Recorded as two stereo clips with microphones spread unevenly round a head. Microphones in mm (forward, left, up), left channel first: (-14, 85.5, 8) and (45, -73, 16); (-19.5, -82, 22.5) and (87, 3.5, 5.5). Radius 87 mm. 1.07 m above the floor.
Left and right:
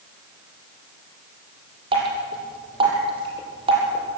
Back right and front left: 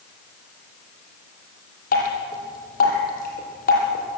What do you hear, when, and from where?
1.9 s dripping: 130° right, 5.5 m